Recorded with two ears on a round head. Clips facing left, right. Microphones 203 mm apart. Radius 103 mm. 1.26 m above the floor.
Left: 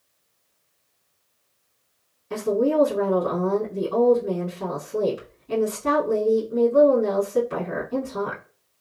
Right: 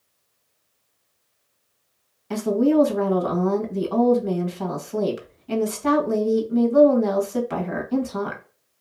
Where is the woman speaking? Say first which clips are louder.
Right 3 dB; 65° right (ahead or behind), 1.4 m.